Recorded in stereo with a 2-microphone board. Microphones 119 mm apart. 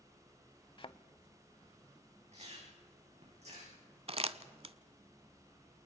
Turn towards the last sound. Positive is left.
turn(degrees=-50)  # may be behind; listen again after turning